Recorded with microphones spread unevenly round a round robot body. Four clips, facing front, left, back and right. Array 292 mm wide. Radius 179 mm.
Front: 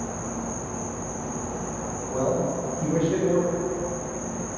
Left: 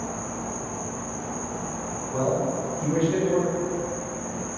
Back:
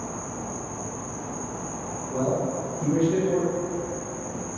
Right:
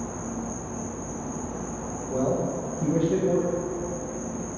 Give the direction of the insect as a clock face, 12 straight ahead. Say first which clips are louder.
Left 1 dB, front 2 dB; 12 o'clock.